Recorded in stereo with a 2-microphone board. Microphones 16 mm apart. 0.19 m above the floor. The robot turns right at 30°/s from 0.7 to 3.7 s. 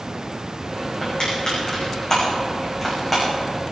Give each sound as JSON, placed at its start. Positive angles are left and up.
{"t": 1.0, "sound": "crushing", "side_deg": 70, "distance_m": 7.5}